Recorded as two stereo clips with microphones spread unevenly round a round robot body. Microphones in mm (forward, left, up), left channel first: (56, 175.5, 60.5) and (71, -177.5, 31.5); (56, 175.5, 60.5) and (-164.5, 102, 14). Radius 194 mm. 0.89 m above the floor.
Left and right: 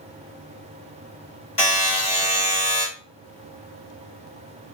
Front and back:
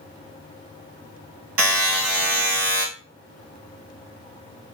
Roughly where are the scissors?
I don't hear scissors.